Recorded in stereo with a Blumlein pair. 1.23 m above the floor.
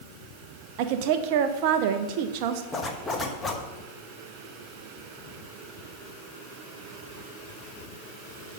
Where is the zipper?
10° left, 1.0 m.